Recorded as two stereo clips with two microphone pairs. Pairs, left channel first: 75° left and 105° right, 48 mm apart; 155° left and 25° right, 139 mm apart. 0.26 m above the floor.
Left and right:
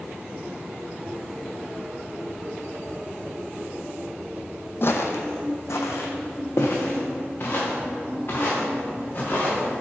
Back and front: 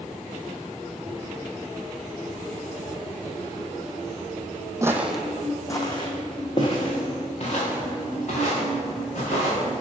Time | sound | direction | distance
4.8 | footsteps | 40° left | 0.6 m